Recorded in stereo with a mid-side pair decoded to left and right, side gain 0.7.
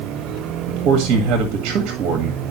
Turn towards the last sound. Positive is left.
turn(degrees=-50)